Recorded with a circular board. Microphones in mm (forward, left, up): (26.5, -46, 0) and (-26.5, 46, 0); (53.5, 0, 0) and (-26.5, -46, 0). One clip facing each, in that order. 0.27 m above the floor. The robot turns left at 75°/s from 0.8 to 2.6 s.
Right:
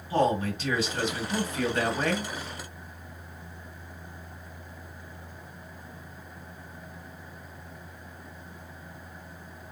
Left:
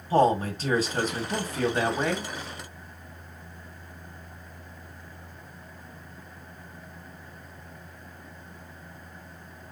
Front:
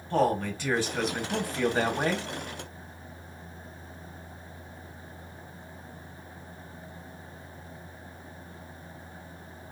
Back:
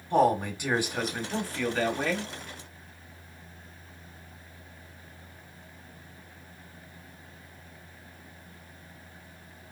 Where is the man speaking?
145° left, 1.6 m; by 2.3 s 30° left, 1.6 m.